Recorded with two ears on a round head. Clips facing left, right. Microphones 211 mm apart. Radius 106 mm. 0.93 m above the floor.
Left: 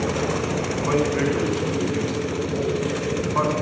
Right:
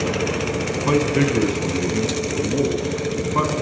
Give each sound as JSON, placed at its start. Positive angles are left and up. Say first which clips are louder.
{"t": 0.9, "sound": "a man speaking", "louder": "right 3 dB", "side_deg": -55, "distance_m": 7.0}